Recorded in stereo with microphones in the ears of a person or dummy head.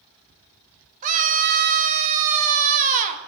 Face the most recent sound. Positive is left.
turn(degrees=-40)  # may be behind; listen again after turning